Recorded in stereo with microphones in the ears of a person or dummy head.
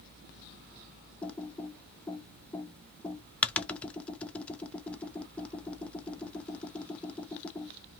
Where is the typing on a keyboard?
10° left (ahead or behind), 0.6 m.